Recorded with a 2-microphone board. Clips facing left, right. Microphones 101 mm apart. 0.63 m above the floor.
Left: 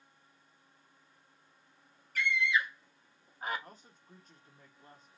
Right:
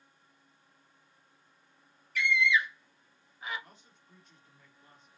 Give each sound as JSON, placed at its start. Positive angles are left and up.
{"t": 2.1, "sound": "a scream", "side_deg": 45, "distance_m": 0.9}
{"t": 3.6, "sound": "a man speaking", "side_deg": 40, "distance_m": 1.0}